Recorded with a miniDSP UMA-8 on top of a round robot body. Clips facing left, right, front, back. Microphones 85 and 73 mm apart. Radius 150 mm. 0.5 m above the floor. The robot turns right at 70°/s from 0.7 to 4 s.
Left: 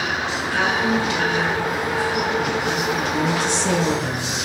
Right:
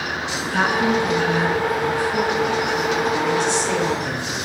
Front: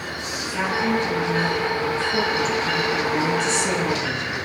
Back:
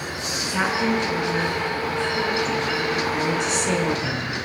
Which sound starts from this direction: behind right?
A woman speaking, at 0.4 s.